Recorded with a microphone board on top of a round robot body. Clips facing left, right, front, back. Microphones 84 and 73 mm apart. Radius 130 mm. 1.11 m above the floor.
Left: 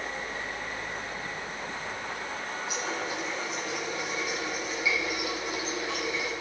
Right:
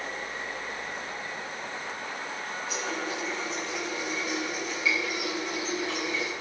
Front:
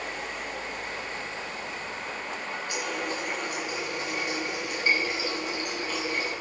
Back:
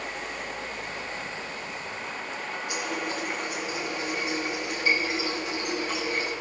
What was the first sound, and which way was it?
A running tap, 160° left.